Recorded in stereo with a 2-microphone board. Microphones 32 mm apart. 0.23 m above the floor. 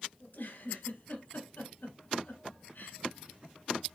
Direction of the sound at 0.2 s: 65° left (ahead or behind).